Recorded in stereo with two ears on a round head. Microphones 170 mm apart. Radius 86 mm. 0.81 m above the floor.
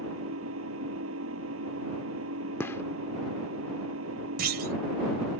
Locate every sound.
0.0 s an engine running: 90° right
2.6 s a gunshot: 10° left (ahead or behind)
4.4 s a clunk: 55° right (ahead or behind)